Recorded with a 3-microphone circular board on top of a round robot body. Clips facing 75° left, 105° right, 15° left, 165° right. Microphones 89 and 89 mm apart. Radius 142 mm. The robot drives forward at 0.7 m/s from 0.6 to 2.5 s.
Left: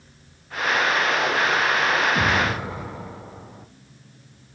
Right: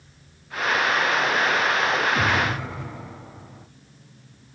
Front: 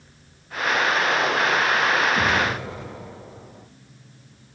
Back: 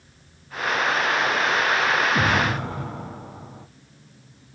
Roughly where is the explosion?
Behind left.